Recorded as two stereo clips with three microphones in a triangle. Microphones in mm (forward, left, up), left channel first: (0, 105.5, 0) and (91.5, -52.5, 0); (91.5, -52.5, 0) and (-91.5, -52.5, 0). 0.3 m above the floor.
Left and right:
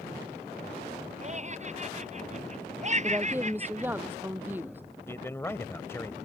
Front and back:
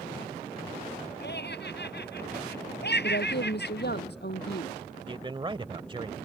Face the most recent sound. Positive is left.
turn(degrees=180)